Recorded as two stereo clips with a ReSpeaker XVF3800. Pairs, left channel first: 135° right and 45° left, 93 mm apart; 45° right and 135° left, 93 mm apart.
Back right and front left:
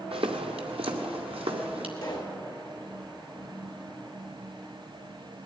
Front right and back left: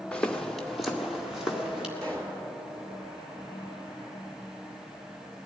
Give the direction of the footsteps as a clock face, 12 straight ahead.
11 o'clock.